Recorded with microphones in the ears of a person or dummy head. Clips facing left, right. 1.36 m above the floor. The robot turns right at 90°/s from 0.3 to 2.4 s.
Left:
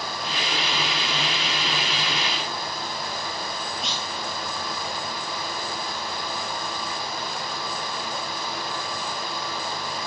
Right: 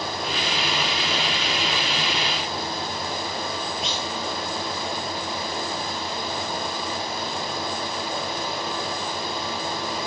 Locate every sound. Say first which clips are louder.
3.8 s a clunk: right 3 dB; 5° right (ahead or behind), 2.5 m